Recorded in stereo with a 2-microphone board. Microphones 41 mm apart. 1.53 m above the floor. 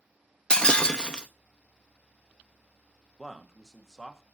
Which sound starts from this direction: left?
Breaking glass, at 0.5 s.